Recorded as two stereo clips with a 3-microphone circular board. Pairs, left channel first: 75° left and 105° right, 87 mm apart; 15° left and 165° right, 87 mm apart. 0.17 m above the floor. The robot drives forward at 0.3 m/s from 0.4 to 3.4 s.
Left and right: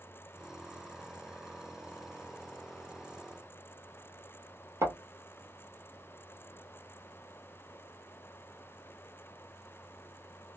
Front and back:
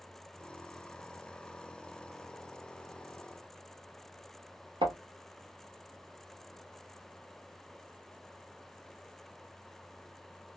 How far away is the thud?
About 1.3 m.